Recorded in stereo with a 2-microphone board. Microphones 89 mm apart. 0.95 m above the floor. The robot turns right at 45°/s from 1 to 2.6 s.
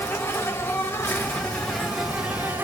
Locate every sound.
0.0 s an insect: 140° left, 0.9 m; by 2.6 s 150° right, 0.9 m